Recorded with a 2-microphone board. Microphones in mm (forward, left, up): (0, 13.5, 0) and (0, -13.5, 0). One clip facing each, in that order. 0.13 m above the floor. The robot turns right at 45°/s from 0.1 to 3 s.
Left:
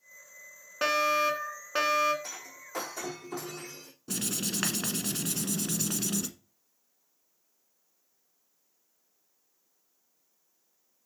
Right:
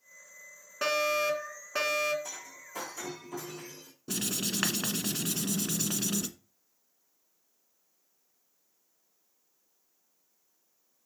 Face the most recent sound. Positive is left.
turn(degrees=-10)  # may be behind; listen again after turning